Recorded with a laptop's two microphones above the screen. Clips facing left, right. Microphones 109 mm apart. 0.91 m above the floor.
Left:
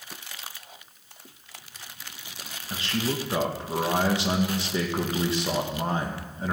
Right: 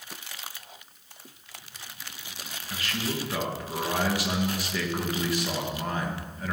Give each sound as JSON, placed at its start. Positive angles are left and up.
{"t": 2.7, "sound": "a man speaking", "side_deg": 30, "distance_m": 1.1}